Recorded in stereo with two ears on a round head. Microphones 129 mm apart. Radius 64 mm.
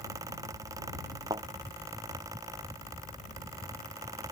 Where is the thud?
25° right (ahead or behind).